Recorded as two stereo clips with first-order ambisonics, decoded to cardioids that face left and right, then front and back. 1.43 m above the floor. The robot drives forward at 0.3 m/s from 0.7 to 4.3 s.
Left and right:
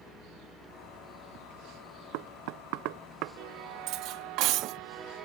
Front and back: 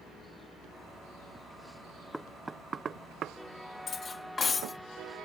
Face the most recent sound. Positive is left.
turn(degrees=-70)